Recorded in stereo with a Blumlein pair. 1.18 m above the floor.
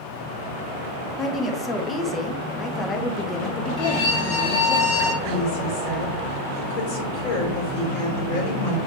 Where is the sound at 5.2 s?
50° left, 4.5 m.